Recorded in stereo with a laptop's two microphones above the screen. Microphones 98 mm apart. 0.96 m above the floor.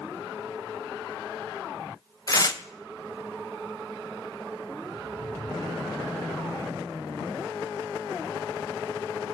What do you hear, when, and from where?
2.3 s tearing paper: 40° left (ahead or behind), 0.7 m